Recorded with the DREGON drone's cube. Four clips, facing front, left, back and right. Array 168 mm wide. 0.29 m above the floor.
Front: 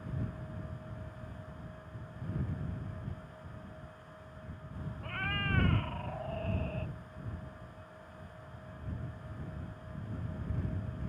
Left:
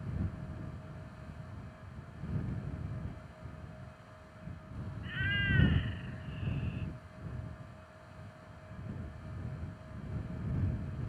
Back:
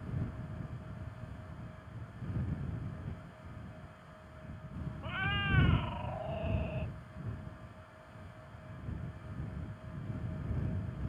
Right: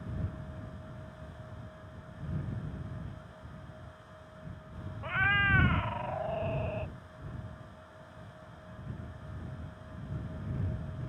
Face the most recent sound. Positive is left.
turn(degrees=-90)